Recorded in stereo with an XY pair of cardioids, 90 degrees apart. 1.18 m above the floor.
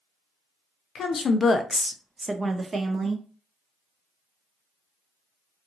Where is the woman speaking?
70° left, 0.7 m; by 3.2 s 50° right, 1.2 m.